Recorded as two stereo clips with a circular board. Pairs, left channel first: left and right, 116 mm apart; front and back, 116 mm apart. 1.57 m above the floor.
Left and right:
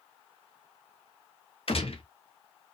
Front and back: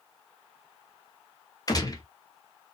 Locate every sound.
1.7 s a gunshot: 55° left, 0.9 m